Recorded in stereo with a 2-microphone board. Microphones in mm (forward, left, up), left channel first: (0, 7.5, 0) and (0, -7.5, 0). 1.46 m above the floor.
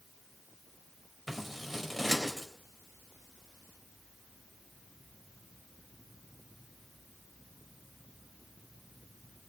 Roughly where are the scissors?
Centre.